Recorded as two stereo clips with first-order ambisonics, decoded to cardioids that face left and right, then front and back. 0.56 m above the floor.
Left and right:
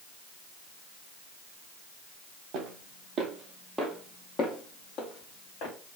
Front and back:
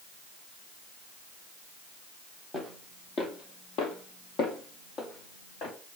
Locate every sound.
2.5 s footsteps: 75° right, 1.0 m; by 5.7 s 55° left, 1.6 m